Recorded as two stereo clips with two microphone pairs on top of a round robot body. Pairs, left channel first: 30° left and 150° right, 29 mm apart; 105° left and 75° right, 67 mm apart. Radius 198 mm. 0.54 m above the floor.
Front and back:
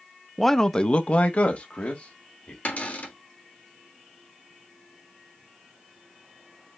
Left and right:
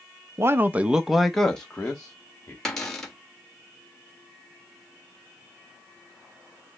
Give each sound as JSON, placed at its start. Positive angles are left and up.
{"t": 0.4, "sound": "a man speaking", "azimuth_deg": -70, "distance_m": 0.6}
{"t": 2.6, "sound": "a cupboard door", "azimuth_deg": 35, "distance_m": 1.6}